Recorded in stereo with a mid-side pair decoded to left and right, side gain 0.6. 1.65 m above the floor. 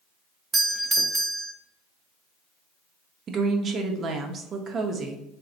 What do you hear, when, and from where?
0.5 s a doorbell: 25° right, 0.5 m
3.3 s a woman speaking: 40° right, 0.8 m